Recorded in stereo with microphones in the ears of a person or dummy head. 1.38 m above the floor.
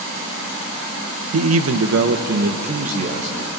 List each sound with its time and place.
1.3 s a man speaking: 80° right, 1.1 m; by 3.5 s 30° right (ahead or behind), 2.5 m